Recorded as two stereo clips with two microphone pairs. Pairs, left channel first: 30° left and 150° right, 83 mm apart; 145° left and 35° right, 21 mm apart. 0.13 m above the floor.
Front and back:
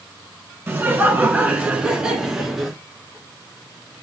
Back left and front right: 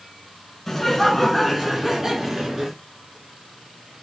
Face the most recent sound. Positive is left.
turn(degrees=-65)